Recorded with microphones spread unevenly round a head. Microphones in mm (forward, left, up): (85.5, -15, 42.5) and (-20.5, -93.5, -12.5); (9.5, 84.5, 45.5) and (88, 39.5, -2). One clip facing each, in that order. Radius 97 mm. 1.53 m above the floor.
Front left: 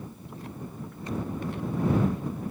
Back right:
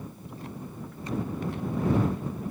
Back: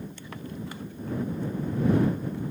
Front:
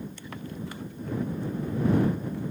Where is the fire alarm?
I don't hear a fire alarm.